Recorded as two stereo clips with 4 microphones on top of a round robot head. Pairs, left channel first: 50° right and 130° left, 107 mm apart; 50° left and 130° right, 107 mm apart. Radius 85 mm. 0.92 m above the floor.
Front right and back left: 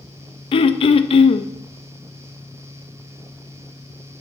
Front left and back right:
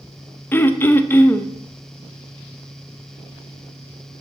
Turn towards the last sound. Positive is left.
turn(degrees=-20)